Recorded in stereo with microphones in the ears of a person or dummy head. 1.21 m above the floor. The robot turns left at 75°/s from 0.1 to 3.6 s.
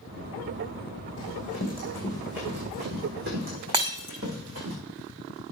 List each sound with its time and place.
1.2 s running footsteps: 70° left (ahead or behind), 4.5 m; by 4.7 s 80° right, 7.5 m
3.7 s breaking glass: 30° right (ahead or behind), 1.7 m